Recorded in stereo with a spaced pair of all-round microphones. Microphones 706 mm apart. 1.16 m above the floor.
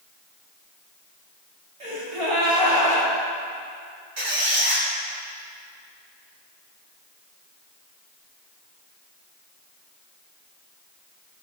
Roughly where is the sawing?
I don't hear sawing.